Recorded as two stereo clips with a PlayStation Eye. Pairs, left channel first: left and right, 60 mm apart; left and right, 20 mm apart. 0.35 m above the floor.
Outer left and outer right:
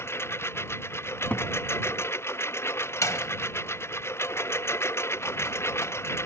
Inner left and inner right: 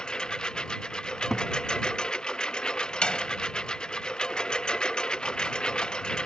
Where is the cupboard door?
25° left (ahead or behind).